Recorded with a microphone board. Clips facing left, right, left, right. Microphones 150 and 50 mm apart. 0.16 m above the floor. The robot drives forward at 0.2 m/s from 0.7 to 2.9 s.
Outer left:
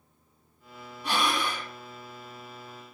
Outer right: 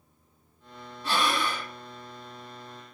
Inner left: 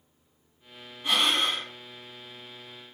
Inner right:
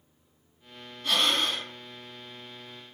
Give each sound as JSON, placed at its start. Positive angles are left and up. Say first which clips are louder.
{"t": 1.0, "sound": "breathing", "louder": "outer right 1 dB, inner left 1 dB", "side_deg": 15, "distance_m": 1.1}